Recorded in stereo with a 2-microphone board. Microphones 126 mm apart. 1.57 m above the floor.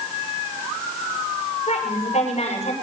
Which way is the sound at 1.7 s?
60° left (ahead or behind).